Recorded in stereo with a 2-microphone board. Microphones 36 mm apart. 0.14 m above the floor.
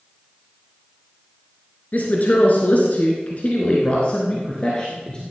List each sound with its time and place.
1.9 s a woman speaking: 50° left (ahead or behind), 2.5 m; by 5.3 s 20° left (ahead or behind), 2.5 m